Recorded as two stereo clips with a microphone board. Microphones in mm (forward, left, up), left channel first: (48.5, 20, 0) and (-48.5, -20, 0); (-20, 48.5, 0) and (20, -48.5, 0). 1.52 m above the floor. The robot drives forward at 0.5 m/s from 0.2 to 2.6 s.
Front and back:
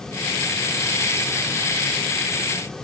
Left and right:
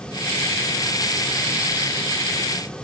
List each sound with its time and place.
Only background noise.